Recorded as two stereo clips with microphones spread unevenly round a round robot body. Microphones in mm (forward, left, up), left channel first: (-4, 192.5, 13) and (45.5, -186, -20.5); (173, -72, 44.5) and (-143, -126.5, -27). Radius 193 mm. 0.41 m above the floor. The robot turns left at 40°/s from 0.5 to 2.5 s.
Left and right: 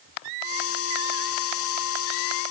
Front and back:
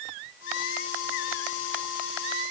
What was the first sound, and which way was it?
Only background noise.